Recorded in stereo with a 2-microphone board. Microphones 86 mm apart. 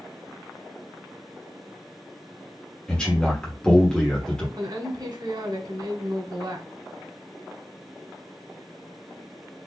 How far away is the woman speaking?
About 1.7 m.